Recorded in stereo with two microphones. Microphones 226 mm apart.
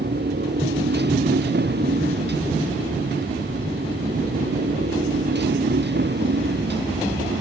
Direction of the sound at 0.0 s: 50° right (ahead or behind).